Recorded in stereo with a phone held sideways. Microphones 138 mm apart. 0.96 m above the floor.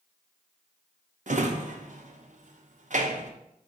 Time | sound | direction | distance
1.3 | a drawer | 65° right (ahead or behind) | 0.5 m